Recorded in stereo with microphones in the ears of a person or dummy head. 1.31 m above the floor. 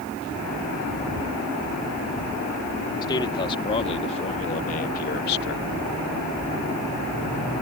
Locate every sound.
3.0 s a man speaking: 25° left (ahead or behind); by 5.6 s 65° left (ahead or behind)